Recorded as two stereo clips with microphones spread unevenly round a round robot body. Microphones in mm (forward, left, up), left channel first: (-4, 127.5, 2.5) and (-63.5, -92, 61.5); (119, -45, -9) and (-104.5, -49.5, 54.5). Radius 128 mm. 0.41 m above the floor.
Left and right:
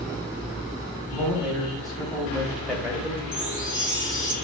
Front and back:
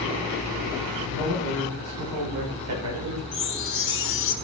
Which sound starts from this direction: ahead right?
A chime, at 3.3 s.